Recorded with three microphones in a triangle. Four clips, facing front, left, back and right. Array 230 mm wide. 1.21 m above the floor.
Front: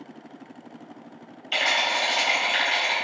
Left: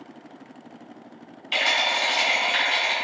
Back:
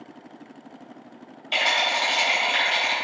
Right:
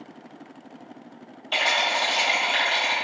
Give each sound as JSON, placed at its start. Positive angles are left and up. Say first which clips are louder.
{"t": 1.5, "sound": "a rattle", "louder": "right 1 dB, back 1 dB", "azimuth_deg": -130, "distance_m": 0.8}